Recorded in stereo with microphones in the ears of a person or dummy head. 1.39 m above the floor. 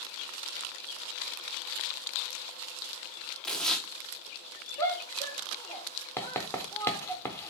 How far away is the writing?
About 0.7 m.